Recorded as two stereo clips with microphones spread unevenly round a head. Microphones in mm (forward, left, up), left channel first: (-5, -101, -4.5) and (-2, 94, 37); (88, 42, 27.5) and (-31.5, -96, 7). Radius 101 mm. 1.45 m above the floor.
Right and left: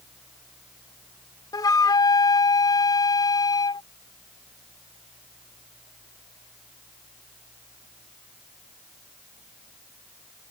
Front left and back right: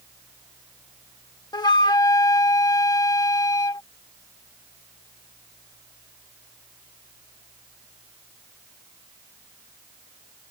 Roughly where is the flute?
Ahead.